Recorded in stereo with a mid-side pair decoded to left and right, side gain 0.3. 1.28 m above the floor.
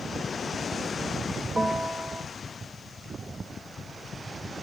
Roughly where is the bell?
Ahead right.